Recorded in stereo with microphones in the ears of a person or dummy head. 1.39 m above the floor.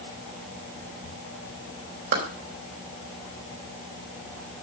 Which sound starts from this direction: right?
A clap, at 2.1 s.